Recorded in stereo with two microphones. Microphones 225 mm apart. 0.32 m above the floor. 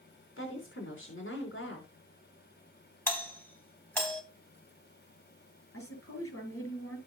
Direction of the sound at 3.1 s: 10° left (ahead or behind).